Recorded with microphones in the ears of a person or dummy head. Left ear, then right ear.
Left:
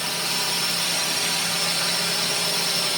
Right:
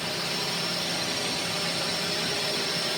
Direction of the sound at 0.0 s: 40° left (ahead or behind).